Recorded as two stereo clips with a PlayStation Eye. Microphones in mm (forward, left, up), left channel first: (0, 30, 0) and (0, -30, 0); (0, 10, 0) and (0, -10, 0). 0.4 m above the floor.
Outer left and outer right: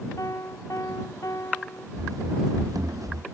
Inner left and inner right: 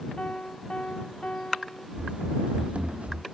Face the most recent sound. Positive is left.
turn(degrees=-65)  # may be behind; listen again after turning